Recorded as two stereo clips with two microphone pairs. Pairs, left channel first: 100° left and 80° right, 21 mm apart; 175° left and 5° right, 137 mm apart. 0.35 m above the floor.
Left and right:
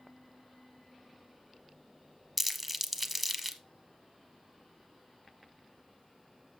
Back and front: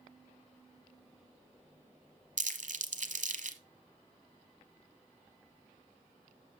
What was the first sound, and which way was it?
Crumpling, 5° left.